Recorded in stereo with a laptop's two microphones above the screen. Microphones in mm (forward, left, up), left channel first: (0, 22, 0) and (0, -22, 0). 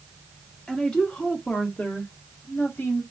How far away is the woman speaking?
About 1.5 m.